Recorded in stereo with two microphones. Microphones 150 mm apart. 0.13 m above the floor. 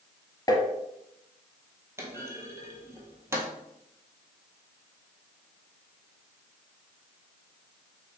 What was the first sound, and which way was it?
Tapping, 25° left (ahead or behind).